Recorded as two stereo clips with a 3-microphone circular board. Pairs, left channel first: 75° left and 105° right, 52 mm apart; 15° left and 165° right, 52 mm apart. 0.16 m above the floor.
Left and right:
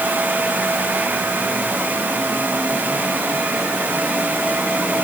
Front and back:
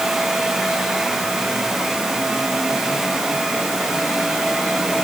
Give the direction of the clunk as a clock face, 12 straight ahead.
No clunk in this recording.